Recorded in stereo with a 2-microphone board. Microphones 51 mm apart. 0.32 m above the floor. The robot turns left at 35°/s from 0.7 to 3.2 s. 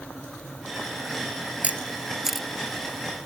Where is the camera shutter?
30° right (ahead or behind); by 2.5 s centre (ahead or behind).